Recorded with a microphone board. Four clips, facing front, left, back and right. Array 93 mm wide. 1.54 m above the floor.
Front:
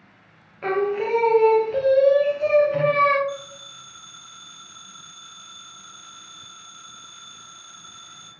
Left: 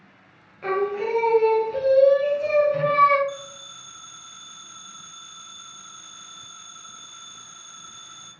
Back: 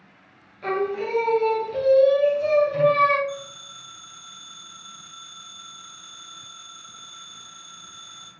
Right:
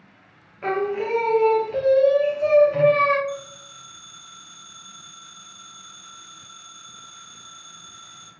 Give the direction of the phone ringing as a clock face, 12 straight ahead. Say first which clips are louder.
Right 3 dB, front 1 dB; 11 o'clock.